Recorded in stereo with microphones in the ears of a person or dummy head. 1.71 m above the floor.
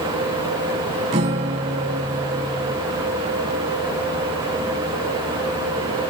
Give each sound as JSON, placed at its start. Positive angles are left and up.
{"t": 1.1, "sound": "a guitar", "side_deg": -30, "distance_m": 0.7}